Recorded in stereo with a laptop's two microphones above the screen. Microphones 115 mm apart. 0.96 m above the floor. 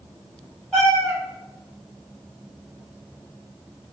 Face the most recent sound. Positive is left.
turn(degrees=5)  # may be behind; listen again after turning